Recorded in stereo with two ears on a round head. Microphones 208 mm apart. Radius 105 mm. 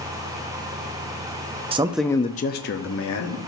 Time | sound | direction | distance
1.7 | a man speaking | 25° right (ahead or behind) | 0.5 m